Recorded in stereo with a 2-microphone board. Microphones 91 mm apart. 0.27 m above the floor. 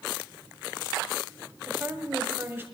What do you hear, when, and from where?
1.7 s a woman speaking: 25° right (ahead or behind), 1.7 m